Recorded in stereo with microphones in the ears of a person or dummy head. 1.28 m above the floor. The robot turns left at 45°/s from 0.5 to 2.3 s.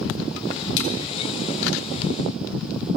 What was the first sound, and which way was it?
A splash, 85° left.